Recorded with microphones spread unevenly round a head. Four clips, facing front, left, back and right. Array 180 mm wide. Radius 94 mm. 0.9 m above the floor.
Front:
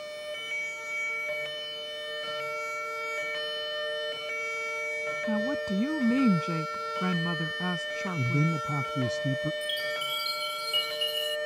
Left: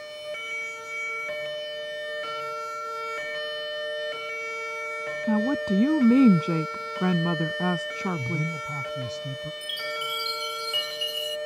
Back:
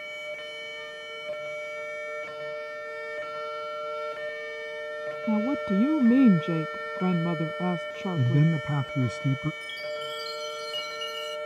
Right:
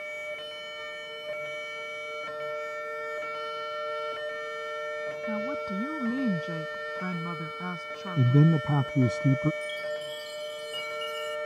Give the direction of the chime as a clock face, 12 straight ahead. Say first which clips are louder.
Even, front 1 dB; 9 o'clock.